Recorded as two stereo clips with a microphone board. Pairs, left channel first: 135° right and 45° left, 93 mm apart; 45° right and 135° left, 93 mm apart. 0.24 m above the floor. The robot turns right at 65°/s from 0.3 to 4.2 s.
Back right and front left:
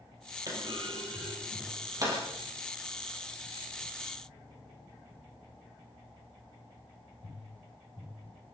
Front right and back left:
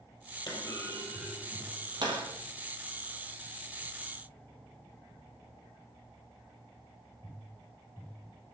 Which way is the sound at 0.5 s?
5° right.